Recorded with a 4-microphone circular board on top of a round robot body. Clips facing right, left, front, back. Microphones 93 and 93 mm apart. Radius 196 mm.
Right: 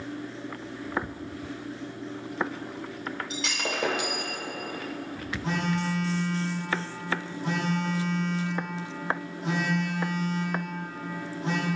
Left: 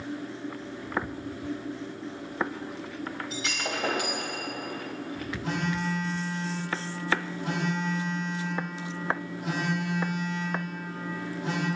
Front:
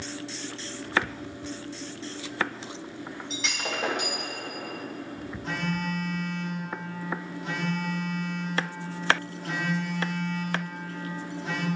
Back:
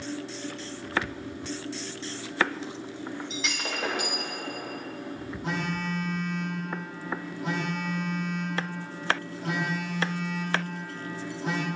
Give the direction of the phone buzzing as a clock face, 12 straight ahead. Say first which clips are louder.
Right 2 dB, even; 5 o'clock.